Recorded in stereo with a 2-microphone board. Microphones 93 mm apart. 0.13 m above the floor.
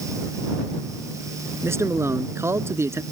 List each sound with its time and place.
1.6 s a man speaking: 30° right (ahead or behind)